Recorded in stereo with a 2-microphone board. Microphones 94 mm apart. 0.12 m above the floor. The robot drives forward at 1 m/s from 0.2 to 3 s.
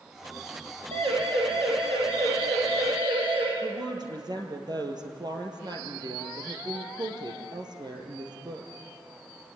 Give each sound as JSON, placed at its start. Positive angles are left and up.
{"t": 0.9, "sound": "a siren", "side_deg": -70, "distance_m": 5.0}
{"t": 3.6, "sound": "a woman speaking", "side_deg": -50, "distance_m": 3.5}